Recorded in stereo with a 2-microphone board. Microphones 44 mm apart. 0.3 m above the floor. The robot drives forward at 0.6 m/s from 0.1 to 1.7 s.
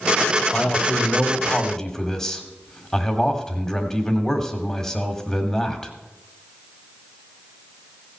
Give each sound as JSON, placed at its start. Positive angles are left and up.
{"t": 0.5, "sound": "a man speaking", "side_deg": 15, "distance_m": 1.0}